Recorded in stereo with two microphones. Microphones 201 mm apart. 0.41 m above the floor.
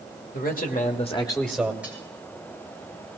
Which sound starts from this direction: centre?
Cutlery clinking, at 1.8 s.